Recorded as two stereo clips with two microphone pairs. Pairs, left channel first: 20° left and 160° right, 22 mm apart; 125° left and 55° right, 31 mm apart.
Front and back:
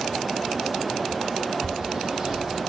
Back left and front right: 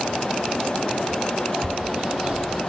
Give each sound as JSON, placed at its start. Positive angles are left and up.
{"t": 1.6, "sound": "a bird", "azimuth_deg": -115, "distance_m": 1.2}